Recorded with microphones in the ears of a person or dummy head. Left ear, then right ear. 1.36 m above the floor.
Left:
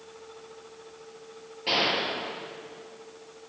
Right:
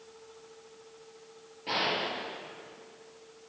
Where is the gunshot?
25° left (ahead or behind), 4.5 m.